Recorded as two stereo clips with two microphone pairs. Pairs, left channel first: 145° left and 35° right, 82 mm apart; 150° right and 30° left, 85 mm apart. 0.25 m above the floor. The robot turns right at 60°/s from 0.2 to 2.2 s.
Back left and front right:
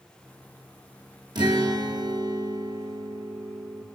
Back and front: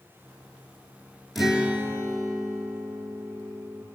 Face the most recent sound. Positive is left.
turn(degrees=-10)